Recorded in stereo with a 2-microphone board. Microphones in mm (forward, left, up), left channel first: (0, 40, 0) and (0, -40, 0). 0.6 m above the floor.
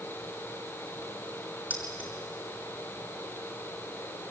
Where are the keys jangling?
20° right (ahead or behind), 6 m.